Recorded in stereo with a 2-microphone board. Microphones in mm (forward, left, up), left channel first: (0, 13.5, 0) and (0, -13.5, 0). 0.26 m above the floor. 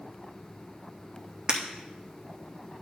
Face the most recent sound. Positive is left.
turn(degrees=-35)  # may be behind; listen again after turning